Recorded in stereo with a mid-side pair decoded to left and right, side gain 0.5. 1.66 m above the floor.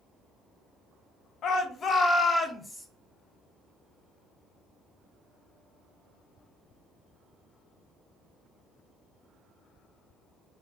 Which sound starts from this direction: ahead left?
A shout, at 1.4 s.